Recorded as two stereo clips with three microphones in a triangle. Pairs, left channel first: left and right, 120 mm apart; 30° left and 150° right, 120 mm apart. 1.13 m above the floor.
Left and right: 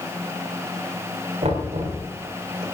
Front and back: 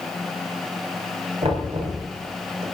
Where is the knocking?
115° right, 3.5 m.